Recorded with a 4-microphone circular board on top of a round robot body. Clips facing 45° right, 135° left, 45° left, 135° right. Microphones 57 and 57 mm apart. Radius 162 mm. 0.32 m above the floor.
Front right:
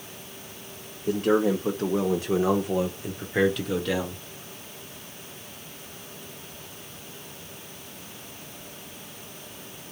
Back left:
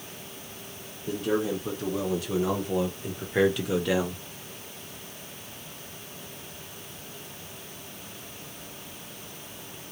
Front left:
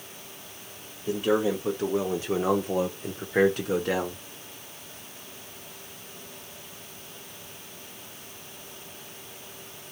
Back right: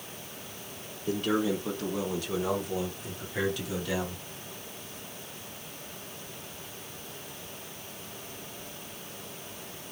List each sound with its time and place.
1.1 s a man speaking: 30° right, 1.6 m; by 4.2 s 65° left, 1.5 m